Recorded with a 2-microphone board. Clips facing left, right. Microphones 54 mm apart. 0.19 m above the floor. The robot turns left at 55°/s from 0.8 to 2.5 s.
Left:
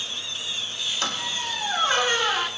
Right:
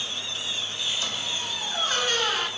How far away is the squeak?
About 0.6 m.